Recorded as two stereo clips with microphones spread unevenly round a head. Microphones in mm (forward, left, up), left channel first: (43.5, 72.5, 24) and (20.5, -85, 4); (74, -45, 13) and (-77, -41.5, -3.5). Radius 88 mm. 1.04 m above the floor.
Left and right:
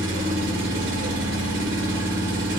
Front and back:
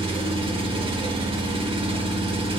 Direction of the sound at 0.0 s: 125° right.